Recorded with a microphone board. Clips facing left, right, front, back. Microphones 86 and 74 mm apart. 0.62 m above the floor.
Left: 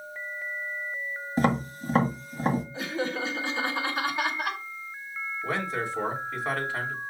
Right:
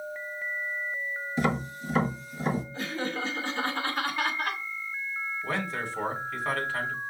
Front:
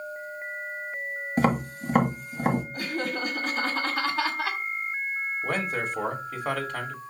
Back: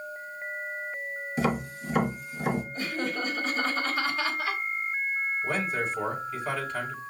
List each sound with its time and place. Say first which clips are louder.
1.4 s tapping: left 3 dB, front 4 dB; 40° left, 1.5 m
2.7 s laughter: left 2 dB, front 1 dB; 20° left, 2.5 m
5.4 s a man speaking: left 3 dB, front 3 dB; 20° left, 2 m